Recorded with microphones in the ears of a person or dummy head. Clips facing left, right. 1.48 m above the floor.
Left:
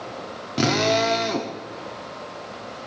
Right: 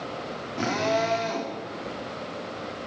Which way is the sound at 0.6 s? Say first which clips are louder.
Left 5 dB; 50° left (ahead or behind).